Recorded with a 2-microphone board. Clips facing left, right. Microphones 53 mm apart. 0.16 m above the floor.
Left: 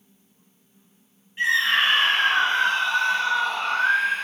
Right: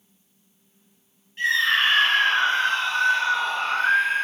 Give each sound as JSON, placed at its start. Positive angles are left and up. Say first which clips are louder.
{"t": 1.4, "sound": "a scream", "louder": "even", "side_deg": 15, "distance_m": 3.5}